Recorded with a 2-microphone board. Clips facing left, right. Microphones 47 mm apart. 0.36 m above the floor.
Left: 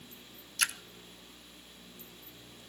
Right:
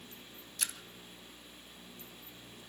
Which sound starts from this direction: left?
A splash, at 0.6 s.